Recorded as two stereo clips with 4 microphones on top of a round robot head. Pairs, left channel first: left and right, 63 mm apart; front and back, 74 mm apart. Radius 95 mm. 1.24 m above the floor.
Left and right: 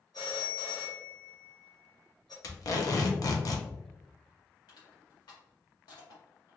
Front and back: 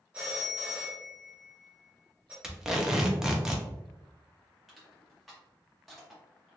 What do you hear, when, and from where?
0.1 s a phone ringing: 115° left, 0.6 m
2.4 s tape being pulled: 100° left, 0.8 m
4.7 s crushing: 90° left, 1.3 m